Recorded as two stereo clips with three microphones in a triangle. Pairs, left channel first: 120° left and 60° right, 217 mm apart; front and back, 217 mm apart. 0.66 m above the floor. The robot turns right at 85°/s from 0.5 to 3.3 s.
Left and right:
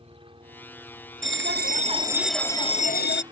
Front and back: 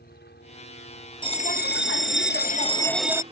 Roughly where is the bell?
Ahead right.